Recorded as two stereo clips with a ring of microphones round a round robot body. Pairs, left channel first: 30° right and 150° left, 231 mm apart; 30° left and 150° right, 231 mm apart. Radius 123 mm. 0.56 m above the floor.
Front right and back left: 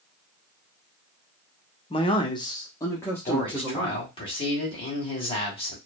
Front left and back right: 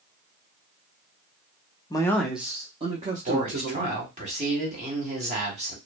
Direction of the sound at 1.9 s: 10° right.